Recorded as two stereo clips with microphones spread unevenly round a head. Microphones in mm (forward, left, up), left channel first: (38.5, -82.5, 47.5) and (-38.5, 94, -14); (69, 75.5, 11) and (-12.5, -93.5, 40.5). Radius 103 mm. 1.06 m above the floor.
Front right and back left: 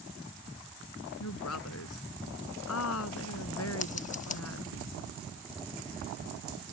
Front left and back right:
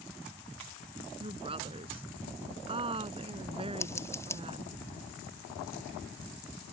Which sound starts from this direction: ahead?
Scissors, at 3.8 s.